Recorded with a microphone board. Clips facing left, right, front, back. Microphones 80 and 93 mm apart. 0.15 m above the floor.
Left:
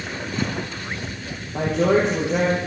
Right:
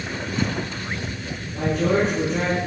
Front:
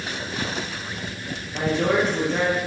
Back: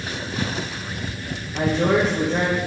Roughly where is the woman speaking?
Left.